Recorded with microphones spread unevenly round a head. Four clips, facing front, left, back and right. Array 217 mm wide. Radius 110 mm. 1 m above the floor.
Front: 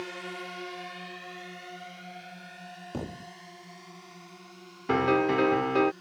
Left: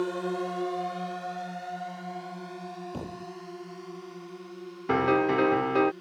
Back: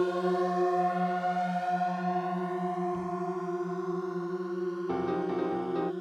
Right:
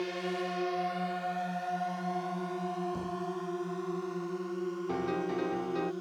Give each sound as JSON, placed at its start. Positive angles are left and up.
{"t": 0.0, "sound": "a drone", "azimuth_deg": 160}
{"t": 2.9, "sound": "a thud", "azimuth_deg": 30}
{"t": 4.9, "sound": "a piano", "azimuth_deg": 50}